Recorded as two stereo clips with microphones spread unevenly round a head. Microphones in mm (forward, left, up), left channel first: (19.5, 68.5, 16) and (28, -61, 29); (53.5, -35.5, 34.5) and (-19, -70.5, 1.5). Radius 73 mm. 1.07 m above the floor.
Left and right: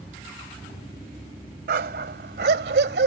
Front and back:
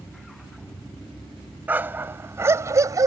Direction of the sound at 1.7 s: 80° right.